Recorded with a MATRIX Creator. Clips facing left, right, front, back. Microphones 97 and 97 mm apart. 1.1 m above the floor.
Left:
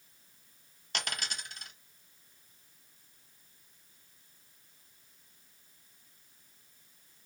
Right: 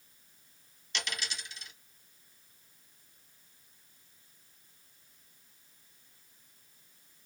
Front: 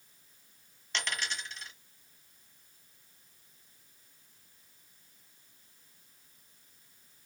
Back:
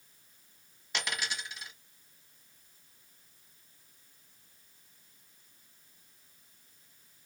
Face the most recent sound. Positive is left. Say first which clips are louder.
# left 1 dB, even
turn(degrees=100)